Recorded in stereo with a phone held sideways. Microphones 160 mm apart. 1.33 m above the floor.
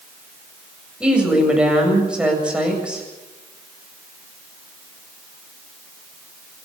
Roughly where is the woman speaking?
Centre.